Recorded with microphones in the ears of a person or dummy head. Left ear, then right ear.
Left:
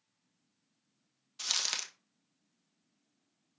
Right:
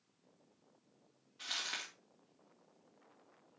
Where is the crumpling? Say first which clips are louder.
Left 7 dB; 80° left, 1.9 m.